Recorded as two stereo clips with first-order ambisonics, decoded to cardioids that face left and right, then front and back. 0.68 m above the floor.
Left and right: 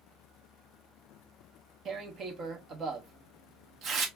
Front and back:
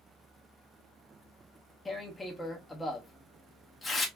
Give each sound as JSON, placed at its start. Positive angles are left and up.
{"t": 1.9, "sound": "tearing paper", "azimuth_deg": -75, "distance_m": 0.7}